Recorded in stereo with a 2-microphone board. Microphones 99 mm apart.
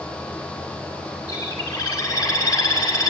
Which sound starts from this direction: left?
A bird, at 1.3 s.